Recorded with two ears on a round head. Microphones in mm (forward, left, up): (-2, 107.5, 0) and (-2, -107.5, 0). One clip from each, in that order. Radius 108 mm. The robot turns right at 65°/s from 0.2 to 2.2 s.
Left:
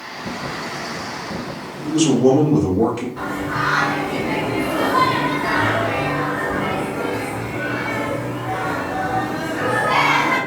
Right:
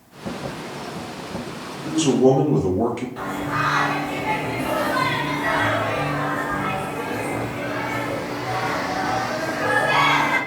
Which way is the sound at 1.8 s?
25° right (ahead or behind).